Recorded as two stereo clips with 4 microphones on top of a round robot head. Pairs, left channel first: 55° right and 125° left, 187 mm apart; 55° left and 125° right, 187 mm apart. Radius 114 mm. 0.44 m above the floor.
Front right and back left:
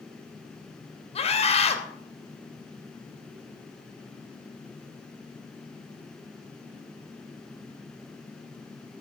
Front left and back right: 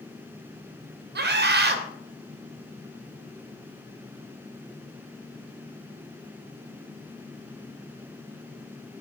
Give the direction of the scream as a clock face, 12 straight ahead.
4 o'clock.